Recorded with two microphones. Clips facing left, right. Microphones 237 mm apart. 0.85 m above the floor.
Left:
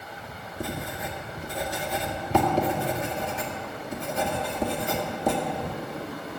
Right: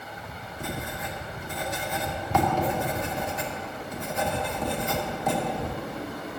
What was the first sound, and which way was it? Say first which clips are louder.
Writing: left 2 dB; 30° left (ahead or behind).